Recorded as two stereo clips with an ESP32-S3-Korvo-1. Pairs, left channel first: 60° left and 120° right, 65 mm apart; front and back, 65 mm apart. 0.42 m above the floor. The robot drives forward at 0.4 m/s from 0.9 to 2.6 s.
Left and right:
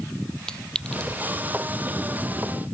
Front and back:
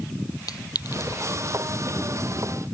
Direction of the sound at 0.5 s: 20° right.